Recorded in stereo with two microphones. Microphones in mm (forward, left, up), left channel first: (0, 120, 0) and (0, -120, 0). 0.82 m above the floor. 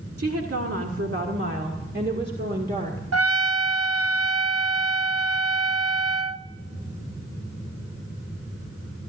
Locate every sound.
0.2 s a woman speaking: 80° right, 1.8 m; by 3.0 s 35° right (ahead or behind), 2 m
3.1 s a trumpet: 90° right, 0.6 m